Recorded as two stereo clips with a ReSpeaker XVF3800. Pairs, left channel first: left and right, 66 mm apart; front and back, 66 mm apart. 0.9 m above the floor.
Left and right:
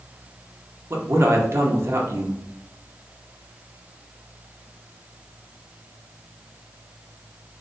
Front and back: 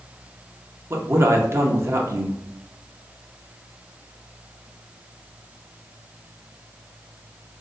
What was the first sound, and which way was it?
A man speaking, 130° right.